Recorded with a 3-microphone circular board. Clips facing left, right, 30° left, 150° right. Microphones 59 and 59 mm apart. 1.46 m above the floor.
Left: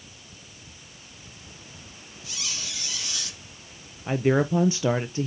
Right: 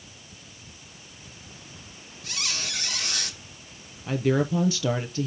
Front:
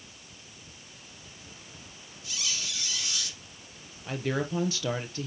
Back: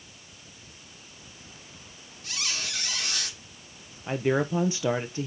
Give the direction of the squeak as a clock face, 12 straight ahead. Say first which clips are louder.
Right 4 dB, back 3 dB; 4 o'clock.